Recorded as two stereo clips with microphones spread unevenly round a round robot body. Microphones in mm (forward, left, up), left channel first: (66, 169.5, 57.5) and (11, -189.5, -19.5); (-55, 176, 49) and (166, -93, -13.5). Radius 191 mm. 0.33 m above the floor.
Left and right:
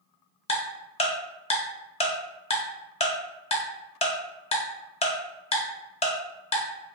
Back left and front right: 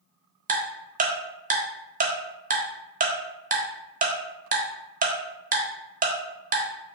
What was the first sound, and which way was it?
Ticking, straight ahead.